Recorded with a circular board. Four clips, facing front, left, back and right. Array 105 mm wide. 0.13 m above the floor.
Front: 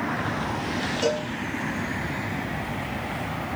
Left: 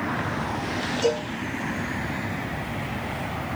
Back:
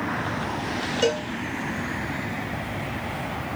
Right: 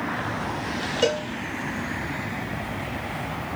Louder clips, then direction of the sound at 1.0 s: Even, back 2 dB; 125° right.